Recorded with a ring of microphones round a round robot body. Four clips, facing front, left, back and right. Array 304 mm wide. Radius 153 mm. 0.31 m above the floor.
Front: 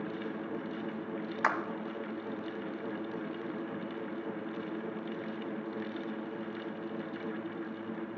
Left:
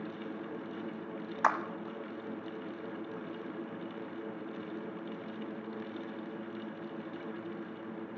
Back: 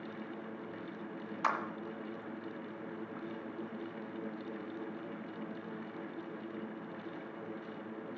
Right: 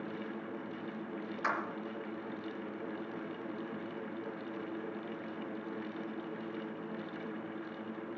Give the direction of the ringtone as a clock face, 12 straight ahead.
No ringtone in this recording.